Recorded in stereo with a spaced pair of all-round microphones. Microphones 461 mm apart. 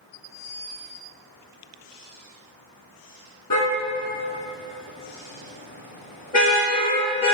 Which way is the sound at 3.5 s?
50° left (ahead or behind).